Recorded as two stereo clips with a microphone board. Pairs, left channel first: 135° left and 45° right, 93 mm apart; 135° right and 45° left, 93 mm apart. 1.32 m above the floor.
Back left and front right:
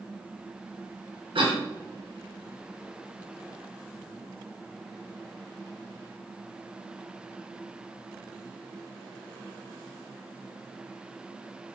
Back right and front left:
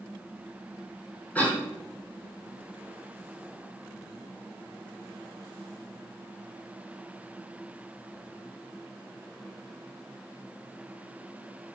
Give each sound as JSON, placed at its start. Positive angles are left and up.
{"t": 1.4, "sound": "a cough", "azimuth_deg": -65, "distance_m": 1.4}